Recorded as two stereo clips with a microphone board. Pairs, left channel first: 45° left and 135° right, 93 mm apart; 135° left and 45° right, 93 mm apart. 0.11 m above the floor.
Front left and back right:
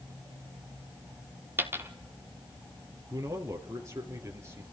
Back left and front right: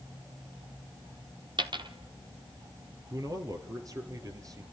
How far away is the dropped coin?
About 1.2 m.